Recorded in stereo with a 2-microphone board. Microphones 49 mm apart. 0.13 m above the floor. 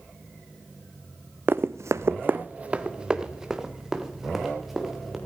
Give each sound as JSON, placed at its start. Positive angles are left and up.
{"t": 1.5, "sound": "running footsteps", "side_deg": -50, "distance_m": 0.6}